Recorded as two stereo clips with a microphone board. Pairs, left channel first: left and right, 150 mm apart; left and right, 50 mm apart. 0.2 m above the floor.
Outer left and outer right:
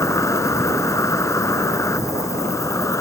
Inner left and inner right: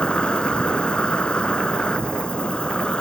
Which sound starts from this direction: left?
An insect, at 0.0 s.